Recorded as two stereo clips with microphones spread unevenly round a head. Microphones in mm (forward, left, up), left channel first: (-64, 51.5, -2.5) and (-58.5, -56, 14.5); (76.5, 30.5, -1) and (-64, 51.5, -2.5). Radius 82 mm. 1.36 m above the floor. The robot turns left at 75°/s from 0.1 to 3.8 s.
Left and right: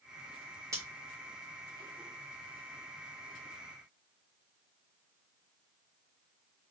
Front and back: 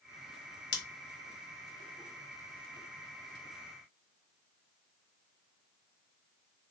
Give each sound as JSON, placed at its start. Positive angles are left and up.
{"t": 0.7, "sound": "scissors", "azimuth_deg": -15, "distance_m": 0.8}